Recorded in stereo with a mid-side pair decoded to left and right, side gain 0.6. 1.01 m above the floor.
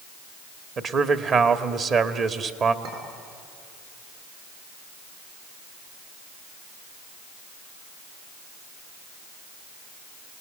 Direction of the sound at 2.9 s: 70° right.